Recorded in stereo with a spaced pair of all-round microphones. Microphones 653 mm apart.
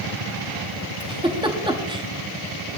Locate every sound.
1.0 s a giggle: 5° right (ahead or behind), 1.1 m